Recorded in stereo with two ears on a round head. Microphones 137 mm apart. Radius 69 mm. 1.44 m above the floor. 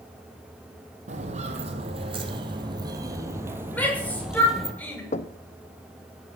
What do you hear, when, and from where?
1.1 s footsteps: 50° right (ahead or behind), 3 m; by 4.7 s centre (ahead or behind), 2.5 m
3.7 s a shout: 10° left (ahead or behind), 6.5 m
5.1 s knocking: 45° left (ahead or behind), 0.9 m